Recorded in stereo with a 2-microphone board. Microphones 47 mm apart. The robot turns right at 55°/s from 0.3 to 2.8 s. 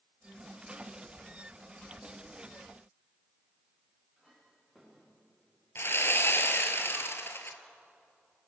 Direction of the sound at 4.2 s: Centre (ahead or behind).